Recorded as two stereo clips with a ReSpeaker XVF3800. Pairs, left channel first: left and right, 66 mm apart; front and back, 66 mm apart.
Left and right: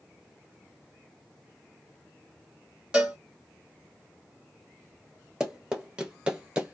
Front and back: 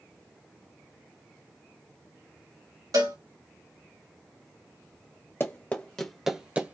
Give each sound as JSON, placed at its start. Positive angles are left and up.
{"t": 2.9, "sound": "a cowbell", "azimuth_deg": -165, "distance_m": 1.4}
{"t": 5.4, "sound": "running footsteps", "azimuth_deg": -15, "distance_m": 1.0}